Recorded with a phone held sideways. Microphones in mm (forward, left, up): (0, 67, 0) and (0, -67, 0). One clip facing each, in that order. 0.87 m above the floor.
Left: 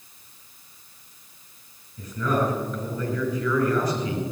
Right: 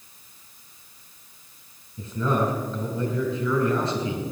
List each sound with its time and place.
2.0 s a man speaking: 25° right (ahead or behind), 5 m